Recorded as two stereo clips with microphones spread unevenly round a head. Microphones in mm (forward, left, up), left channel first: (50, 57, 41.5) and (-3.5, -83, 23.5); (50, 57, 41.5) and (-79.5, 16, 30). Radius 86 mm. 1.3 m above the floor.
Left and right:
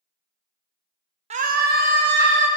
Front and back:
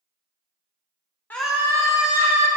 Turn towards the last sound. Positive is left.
turn(degrees=-110)